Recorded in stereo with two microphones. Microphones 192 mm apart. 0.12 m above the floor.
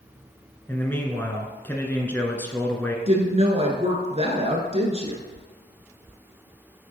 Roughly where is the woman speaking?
Right.